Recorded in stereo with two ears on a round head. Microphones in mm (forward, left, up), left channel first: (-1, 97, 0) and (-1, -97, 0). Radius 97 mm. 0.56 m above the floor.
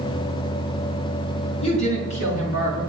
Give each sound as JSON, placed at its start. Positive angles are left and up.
{"t": 1.6, "sound": "a woman speaking", "side_deg": 30, "distance_m": 3.5}